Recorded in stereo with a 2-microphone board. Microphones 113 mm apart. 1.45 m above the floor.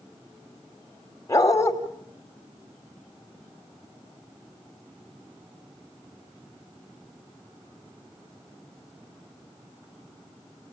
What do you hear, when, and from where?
1.3 s a dog barking: 30° left (ahead or behind), 2.5 m